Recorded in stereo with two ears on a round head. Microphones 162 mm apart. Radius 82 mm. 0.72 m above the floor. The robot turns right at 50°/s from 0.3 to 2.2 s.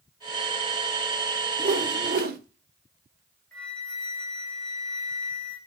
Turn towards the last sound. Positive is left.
turn(degrees=5)  # may be behind; listen again after turning